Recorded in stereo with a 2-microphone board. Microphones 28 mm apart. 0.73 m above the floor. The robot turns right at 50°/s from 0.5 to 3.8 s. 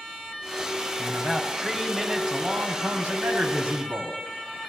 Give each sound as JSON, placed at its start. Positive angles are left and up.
{"t": 1.0, "sound": "a man speaking", "azimuth_deg": 140, "distance_m": 5.0}